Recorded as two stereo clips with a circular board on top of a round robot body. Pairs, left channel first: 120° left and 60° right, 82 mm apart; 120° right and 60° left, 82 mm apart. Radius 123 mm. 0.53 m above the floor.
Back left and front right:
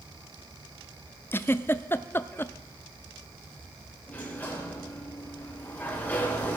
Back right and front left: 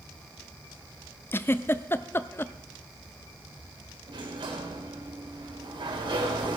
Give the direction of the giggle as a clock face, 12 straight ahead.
6 o'clock.